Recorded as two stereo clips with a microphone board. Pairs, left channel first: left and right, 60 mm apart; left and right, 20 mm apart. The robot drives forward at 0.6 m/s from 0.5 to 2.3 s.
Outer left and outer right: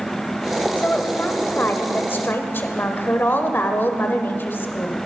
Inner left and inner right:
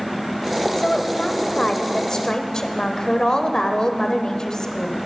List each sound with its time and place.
0.8 s a woman speaking: 25° left (ahead or behind), 1.3 m; by 5.0 s 35° left (ahead or behind), 1.0 m